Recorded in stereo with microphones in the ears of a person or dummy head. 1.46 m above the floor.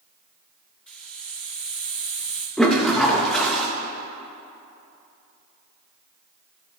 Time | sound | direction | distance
0.9 | a hiss | centre (ahead or behind) | 1.1 m
2.6 | a toilet flushing | centre (ahead or behind) | 0.9 m